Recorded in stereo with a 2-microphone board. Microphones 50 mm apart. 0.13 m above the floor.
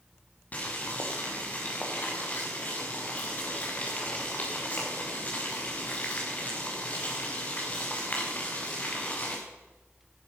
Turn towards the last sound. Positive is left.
turn(degrees=30)  # may be behind; listen again after turning